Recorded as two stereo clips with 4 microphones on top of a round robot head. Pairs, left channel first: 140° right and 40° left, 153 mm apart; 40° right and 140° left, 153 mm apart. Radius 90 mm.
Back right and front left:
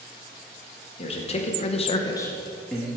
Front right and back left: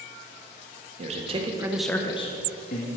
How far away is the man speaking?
About 1.4 m.